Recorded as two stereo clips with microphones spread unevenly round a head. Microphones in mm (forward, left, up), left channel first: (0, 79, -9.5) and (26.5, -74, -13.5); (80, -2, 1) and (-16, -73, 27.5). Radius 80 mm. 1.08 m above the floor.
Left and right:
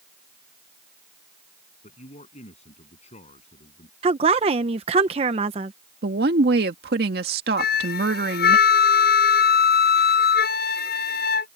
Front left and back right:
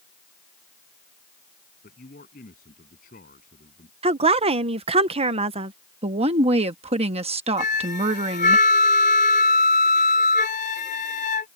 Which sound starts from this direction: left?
A flute, at 7.6 s.